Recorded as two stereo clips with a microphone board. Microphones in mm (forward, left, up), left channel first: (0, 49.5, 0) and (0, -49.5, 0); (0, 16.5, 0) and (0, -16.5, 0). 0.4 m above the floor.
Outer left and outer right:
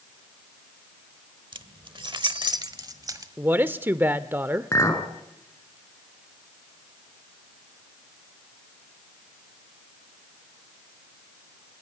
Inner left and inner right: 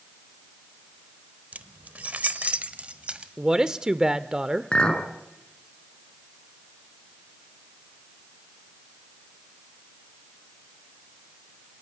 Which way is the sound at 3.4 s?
20° right (ahead or behind).